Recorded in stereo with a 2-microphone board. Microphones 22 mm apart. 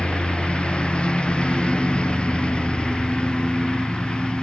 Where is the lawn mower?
55° left (ahead or behind); by 4.4 s 50° left (ahead or behind).